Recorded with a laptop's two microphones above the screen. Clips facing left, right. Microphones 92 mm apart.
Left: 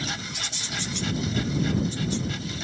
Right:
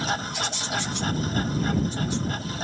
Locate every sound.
0.0 s a machine running: 45° right (ahead or behind)